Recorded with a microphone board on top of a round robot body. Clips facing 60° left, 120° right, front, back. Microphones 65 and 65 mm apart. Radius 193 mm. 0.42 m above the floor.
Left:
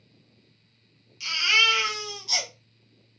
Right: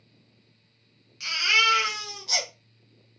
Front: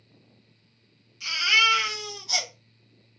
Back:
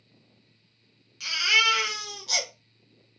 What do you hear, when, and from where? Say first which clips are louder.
1.2 s a baby crying: even, front 1 dB; 160° right, 1.3 m